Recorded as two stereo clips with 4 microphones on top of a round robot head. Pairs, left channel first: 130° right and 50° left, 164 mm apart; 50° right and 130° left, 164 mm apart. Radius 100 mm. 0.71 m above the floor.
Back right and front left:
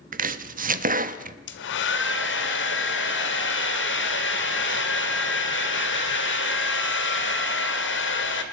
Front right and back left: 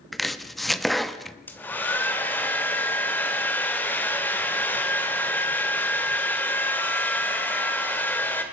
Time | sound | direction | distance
0.1 | chopping | 40° left | 0.9 m
1.5 | a hair dryer | 130° right | 1.8 m